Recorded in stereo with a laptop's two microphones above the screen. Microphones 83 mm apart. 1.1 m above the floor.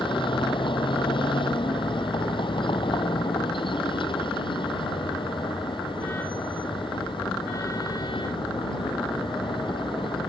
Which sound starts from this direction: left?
A vehicle, at 0.0 s.